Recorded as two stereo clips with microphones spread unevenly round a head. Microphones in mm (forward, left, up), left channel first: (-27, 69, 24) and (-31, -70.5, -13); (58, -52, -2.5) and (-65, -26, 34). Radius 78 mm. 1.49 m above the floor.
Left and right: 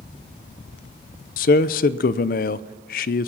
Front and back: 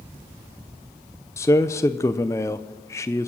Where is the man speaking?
65° left, 0.5 m.